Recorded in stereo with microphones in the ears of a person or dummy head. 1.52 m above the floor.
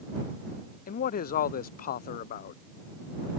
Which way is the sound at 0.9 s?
50° left (ahead or behind).